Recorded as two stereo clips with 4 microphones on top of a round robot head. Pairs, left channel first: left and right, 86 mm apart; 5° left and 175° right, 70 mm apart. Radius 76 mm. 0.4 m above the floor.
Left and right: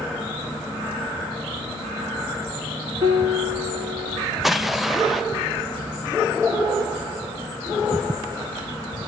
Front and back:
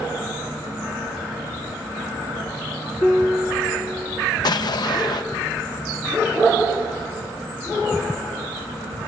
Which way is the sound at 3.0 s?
55° right.